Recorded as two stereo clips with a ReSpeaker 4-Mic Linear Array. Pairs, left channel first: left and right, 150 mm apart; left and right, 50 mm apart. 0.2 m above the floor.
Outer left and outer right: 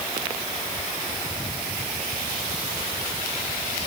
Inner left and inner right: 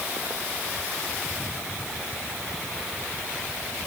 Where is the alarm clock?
No alarm clock in this recording.